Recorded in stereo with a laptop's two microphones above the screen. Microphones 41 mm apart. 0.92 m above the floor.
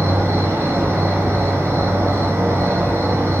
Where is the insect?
80° right, 1.0 m.